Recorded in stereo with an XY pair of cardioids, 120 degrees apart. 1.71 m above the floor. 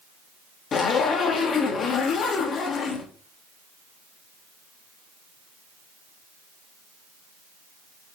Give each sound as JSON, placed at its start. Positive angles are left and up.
{"t": 0.7, "sound": "a zipper", "azimuth_deg": 50, "distance_m": 0.9}